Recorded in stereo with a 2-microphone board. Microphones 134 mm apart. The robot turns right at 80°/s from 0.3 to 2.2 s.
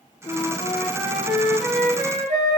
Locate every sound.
0.2 s a flute: 120° left, 4.5 m; by 2.6 s 85° right, 4.5 m